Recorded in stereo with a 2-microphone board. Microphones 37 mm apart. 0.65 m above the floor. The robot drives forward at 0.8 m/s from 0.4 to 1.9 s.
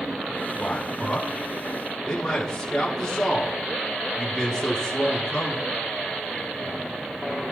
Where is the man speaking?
25° left (ahead or behind), 5.5 m; by 5.7 s 20° left (ahead or behind), 6.5 m.